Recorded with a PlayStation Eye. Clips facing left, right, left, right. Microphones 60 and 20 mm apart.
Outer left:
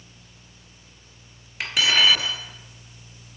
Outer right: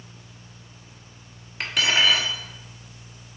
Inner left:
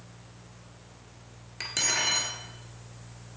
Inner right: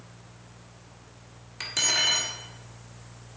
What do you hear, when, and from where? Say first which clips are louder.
1.6 s cutlery clinking: outer left 1 dB, inner right 3 dB; centre (ahead or behind), 1.3 m